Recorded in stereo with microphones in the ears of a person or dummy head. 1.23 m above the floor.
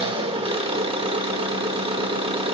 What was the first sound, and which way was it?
An engine running, 30° right (ahead or behind).